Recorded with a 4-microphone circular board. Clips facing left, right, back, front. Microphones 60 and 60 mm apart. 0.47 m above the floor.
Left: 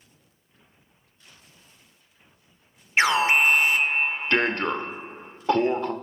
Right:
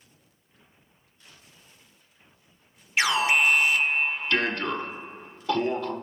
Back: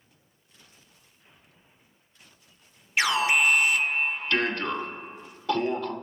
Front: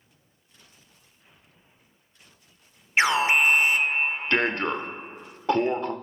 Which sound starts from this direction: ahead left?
An alarm, at 3.0 s.